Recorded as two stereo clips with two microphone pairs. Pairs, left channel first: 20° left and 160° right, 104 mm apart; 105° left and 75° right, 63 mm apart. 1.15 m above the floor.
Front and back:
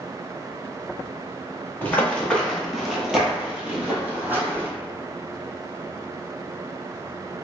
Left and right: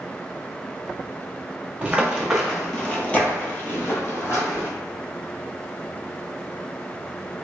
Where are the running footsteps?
30° right, 1.2 m; by 4.7 s 135° left, 1.9 m.